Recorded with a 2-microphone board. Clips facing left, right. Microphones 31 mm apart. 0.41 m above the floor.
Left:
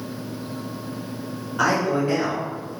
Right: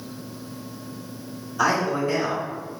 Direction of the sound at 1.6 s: 50° left (ahead or behind).